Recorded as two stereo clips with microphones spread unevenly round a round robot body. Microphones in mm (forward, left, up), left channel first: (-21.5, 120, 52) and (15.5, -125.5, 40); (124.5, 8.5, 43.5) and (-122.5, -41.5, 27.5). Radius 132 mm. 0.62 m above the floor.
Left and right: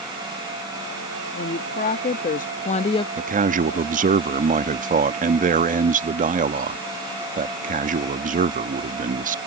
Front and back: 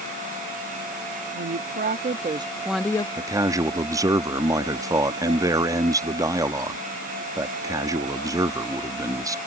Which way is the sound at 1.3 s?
155° left.